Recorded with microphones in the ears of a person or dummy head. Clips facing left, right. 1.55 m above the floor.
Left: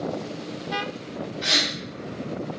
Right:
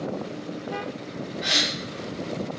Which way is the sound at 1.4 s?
50° left (ahead or behind).